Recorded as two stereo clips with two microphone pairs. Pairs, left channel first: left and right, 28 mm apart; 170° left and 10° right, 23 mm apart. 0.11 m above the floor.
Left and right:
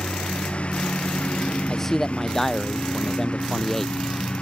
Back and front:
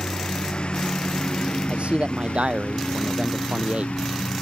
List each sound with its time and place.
0.0 s a lawn mower: 130° left
1.7 s a man speaking: 10° left